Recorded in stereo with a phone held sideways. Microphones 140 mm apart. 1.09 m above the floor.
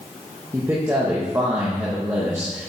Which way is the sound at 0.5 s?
20° right (ahead or behind).